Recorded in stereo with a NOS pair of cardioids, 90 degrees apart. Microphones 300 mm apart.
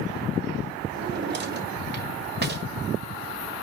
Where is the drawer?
35° right, 1.6 m.